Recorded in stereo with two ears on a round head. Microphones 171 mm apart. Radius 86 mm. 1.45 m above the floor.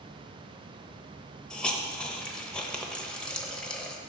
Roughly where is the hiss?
Centre.